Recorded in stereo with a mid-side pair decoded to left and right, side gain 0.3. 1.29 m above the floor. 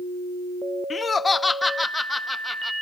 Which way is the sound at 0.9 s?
55° left.